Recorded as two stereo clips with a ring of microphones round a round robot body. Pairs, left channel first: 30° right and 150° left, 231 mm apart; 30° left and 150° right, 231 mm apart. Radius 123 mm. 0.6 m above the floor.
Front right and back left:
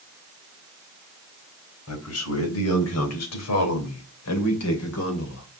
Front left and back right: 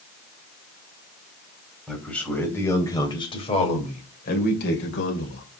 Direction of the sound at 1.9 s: 60° right.